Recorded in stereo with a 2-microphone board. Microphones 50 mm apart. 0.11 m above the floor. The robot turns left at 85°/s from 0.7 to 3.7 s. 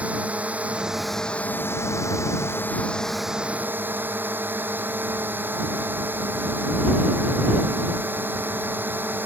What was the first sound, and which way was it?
A drone, 150° right.